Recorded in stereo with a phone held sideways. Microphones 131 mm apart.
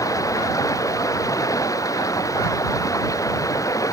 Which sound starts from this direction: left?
Running water, at 0.0 s.